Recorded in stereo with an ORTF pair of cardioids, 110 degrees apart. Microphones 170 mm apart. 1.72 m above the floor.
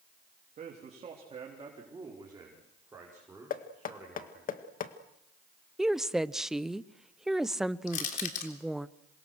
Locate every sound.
0.6 s a man speaking: 45° right, 3.5 m; by 4.5 s 10° right, 8 m
3.5 s knocking: 55° left, 1.9 m
5.8 s a woman speaking: straight ahead, 0.9 m
7.9 s crushing: 50° left, 3.5 m